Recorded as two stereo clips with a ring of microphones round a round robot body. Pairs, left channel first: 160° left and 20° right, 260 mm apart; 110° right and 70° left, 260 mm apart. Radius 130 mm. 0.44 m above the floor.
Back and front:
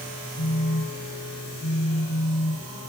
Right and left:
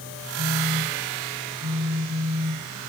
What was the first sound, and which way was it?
A phone buzzing, 120° left.